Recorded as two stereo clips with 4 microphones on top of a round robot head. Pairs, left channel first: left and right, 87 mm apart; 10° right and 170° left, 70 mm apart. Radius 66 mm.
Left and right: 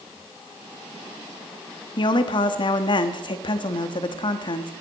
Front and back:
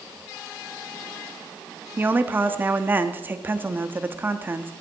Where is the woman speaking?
110° left, 1.3 m.